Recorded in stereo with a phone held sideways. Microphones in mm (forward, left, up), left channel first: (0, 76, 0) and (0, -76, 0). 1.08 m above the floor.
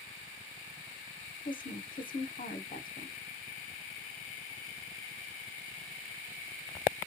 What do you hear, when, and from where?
1.4 s a woman speaking: 65° left (ahead or behind), 0.7 m